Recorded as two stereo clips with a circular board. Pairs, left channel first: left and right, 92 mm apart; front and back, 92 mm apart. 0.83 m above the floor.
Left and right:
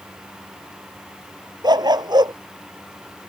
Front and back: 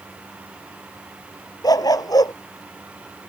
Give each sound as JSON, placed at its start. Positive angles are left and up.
{"t": 1.6, "sound": "a dog barking", "azimuth_deg": -50}